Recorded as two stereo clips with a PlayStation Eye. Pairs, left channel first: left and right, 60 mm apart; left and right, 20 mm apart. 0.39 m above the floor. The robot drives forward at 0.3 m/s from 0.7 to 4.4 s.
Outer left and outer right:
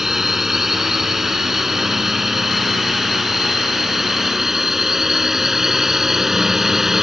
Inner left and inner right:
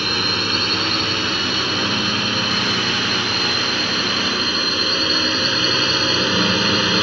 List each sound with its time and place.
0.0 s a drone: 5° right (ahead or behind)